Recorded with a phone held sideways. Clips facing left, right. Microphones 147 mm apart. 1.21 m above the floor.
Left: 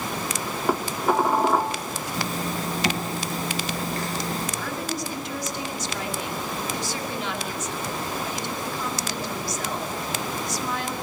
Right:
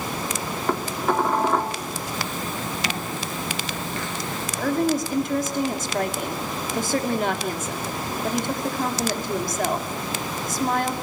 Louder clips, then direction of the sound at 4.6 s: Right 8 dB; 50° right (ahead or behind).